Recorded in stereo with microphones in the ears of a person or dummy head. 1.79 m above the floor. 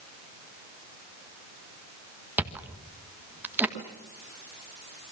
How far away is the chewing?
About 1.5 m.